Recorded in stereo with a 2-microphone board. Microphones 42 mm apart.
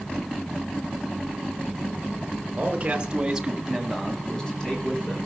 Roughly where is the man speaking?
Right.